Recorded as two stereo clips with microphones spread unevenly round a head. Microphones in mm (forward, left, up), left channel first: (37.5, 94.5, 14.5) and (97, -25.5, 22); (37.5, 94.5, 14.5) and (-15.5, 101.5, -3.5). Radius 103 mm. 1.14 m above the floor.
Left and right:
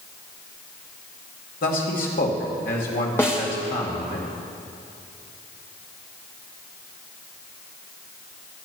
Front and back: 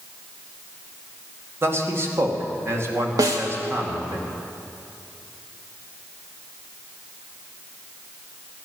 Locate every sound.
1.6 s a man speaking: 145° left, 2.5 m
3.2 s a snare drum: 165° right, 0.9 m